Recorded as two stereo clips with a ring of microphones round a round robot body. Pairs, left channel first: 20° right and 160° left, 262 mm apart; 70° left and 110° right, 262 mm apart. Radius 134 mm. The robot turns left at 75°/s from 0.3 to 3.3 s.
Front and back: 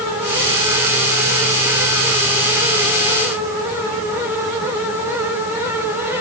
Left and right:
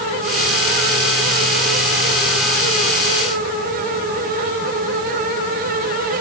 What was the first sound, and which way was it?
Only background noise.